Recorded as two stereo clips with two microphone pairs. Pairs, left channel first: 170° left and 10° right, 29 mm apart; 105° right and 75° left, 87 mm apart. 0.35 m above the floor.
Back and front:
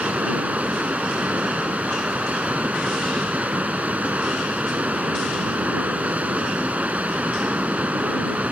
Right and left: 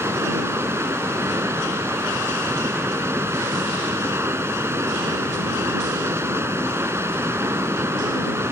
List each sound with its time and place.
0.0 s running water: 15° left